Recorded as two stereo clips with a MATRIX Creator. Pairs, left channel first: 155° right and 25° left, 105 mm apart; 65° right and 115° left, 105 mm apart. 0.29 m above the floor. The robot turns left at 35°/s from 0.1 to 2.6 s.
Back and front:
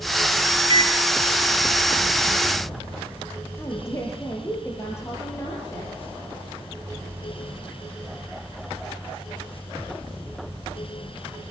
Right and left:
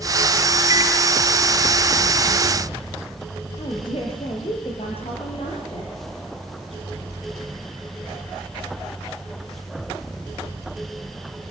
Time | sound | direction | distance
0.7 | a microwave | 60° left | 4 m
3.6 | a woman speaking | 95° right | 6.5 m